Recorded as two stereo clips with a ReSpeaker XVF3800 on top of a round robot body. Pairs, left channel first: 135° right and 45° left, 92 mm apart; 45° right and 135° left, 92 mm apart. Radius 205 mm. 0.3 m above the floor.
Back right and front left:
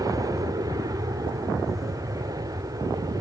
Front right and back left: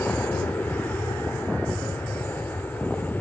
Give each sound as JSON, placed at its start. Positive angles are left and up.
{"t": 0.0, "sound": "an aircraft", "azimuth_deg": 20}